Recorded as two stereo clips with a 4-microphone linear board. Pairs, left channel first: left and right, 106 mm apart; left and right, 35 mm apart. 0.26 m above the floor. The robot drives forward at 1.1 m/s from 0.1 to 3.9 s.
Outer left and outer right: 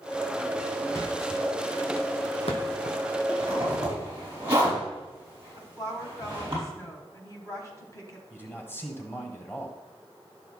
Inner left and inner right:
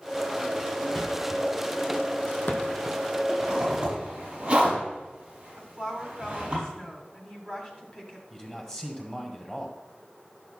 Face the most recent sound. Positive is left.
turn(degrees=20)  # may be behind; listen again after turning